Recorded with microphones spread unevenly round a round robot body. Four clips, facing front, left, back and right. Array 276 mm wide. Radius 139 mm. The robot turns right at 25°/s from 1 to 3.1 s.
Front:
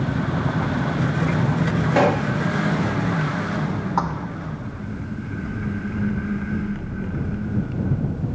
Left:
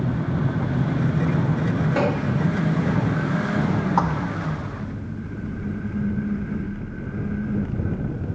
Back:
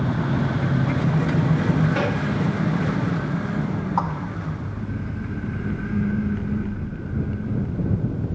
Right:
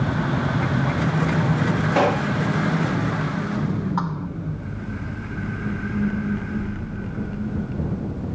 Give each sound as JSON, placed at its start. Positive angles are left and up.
{"t": 1.9, "sound": "a gunshot", "azimuth_deg": -15}
{"t": 4.0, "sound": "a thud", "azimuth_deg": 65}